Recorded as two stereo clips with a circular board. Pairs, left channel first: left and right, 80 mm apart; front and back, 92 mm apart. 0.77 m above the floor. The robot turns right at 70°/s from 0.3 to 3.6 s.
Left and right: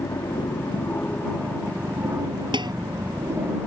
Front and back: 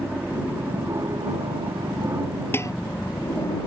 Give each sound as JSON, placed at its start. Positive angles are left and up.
{"t": 0.0, "sound": "an aircraft", "azimuth_deg": 95}
{"t": 2.5, "sound": "dishes clattering", "azimuth_deg": -70}